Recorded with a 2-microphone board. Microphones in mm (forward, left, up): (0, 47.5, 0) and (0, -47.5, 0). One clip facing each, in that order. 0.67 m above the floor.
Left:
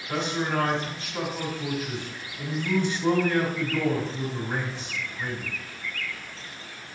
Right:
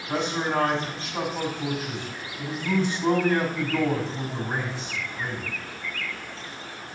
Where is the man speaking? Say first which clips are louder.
Right 2 dB; 25° right (ahead or behind), 4.5 m.